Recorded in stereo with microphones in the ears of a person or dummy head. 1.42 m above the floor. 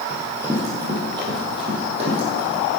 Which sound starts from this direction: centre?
Running footsteps, at 0.1 s.